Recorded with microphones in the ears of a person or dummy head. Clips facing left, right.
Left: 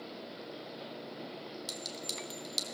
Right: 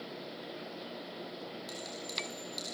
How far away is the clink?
About 3.5 m.